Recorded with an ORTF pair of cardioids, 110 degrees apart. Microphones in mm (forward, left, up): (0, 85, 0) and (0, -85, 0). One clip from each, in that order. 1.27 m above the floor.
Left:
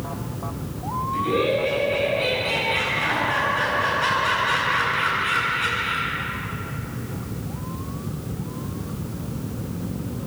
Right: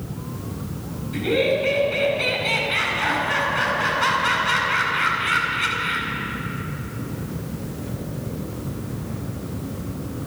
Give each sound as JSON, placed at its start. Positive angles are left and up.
{"t": 1.1, "sound": "laughter", "azimuth_deg": -40, "distance_m": 9.0}